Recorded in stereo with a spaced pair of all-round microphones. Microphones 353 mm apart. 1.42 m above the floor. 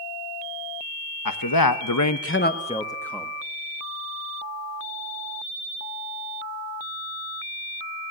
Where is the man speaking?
65° left (ahead or behind), 1.4 m; by 3.3 s centre (ahead or behind), 2 m.